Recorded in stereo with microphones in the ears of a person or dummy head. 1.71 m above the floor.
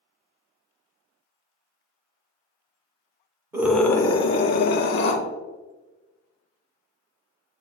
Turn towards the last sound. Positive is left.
turn(degrees=65)  # may be behind; listen again after turning